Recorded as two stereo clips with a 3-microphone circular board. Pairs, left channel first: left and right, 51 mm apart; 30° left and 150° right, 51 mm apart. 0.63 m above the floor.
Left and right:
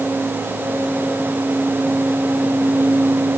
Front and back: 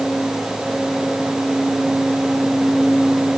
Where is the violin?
No violin in this recording.